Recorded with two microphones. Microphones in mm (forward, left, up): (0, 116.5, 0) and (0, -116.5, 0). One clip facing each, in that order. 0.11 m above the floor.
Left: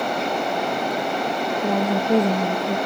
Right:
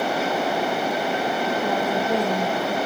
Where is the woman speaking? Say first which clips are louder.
Left 6 dB; 25° left (ahead or behind), 2.5 m.